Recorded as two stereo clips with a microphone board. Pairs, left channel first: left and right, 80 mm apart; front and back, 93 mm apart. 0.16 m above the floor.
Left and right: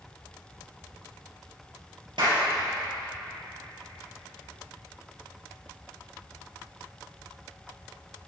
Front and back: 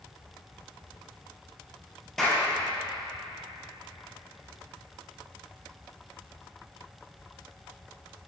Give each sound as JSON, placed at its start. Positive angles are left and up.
{"t": 2.2, "sound": "a clap", "azimuth_deg": -85, "distance_m": 2.5}